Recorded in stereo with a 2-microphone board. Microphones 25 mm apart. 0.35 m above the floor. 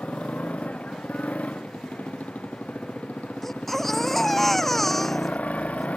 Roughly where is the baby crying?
Centre.